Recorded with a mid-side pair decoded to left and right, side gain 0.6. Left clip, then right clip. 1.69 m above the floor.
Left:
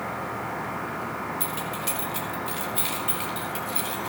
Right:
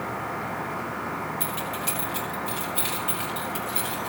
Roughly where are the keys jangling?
Ahead.